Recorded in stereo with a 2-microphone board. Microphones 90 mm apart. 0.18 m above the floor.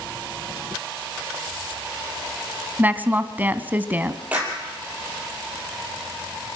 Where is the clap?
15° right (ahead or behind), 5 m.